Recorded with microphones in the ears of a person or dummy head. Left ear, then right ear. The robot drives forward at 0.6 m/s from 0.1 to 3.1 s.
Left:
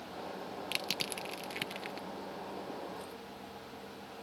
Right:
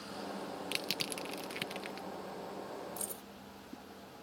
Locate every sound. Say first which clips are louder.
0.7 s crushing: left 2 dB; 5° left (ahead or behind); by 2.1 s centre (ahead or behind)
3.0 s keys jangling: even; 40° right (ahead or behind)